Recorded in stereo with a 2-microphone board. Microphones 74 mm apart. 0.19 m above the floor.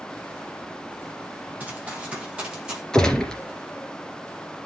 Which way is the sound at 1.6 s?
20° right (ahead or behind).